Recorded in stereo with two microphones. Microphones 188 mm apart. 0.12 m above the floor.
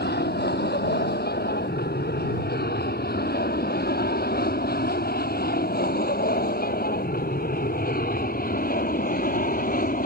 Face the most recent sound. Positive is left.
turn(degrees=50)  # may be behind; listen again after turning